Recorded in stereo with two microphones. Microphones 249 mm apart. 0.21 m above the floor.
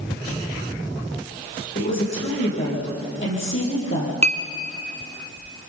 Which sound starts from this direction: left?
A woman speaking, at 1.8 s.